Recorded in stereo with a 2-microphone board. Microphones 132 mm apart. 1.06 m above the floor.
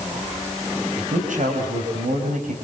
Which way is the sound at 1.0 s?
80° right.